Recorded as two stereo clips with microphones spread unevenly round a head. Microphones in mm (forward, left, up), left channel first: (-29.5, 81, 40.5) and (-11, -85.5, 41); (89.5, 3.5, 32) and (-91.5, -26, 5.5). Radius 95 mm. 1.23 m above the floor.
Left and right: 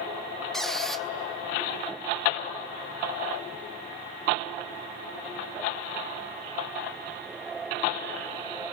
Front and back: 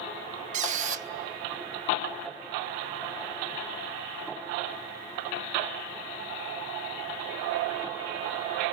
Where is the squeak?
175° right, 0.7 m.